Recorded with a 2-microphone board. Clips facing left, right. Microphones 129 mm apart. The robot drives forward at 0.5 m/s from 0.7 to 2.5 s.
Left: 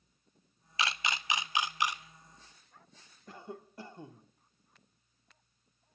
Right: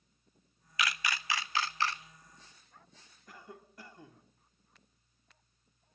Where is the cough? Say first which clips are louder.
Left 6 dB; 30° left (ahead or behind), 1.1 m.